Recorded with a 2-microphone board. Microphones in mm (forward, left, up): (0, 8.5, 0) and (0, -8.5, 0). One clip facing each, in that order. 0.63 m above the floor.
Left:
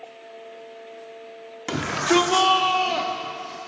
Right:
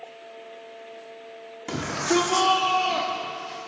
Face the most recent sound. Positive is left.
turn(degrees=-5)  # may be behind; listen again after turning